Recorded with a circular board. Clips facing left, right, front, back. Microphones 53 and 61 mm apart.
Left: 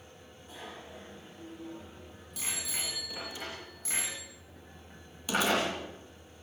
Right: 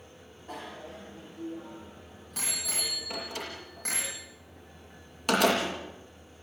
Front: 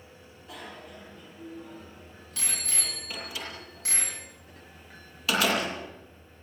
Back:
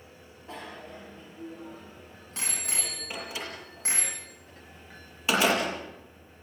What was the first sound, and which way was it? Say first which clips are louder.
A bicycle bell: right 5 dB, back 2 dB; 125° right.